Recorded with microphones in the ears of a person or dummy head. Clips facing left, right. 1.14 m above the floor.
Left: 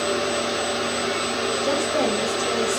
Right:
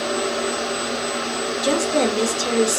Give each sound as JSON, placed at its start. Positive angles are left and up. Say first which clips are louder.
{"t": 1.6, "sound": "a woman speaking", "louder": "right 4 dB", "side_deg": -50, "distance_m": 0.5}